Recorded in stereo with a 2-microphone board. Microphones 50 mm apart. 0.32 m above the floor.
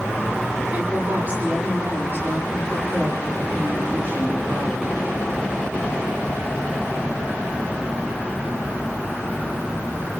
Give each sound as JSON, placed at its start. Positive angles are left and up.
{"t": 0.7, "sound": "a woman speaking", "side_deg": -40, "distance_m": 9.0}